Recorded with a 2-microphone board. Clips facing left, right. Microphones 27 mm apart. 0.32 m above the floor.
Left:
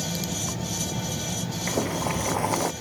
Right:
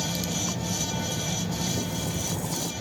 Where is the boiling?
50° left (ahead or behind).